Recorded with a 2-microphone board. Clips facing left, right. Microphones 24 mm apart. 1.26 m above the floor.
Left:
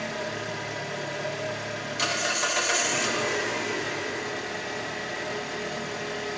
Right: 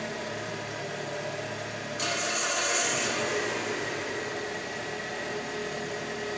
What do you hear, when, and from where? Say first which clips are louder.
0.0 s an engine running: left 3 dB; 30° left (ahead or behind), 0.8 m